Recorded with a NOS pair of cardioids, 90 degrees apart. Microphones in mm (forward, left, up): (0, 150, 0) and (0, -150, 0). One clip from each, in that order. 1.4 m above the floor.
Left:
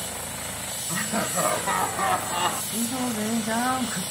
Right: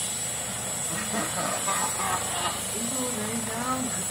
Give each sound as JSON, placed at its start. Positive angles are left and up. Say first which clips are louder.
{"t": 0.9, "sound": "laughter", "louder": "left 4 dB", "azimuth_deg": 45, "distance_m": 1.6}
{"t": 2.7, "sound": "singing", "louder": "left 2 dB", "azimuth_deg": 55, "distance_m": 1.9}